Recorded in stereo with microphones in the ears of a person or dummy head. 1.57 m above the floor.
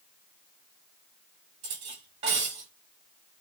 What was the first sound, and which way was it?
Cutlery clinking, 30° right (ahead or behind).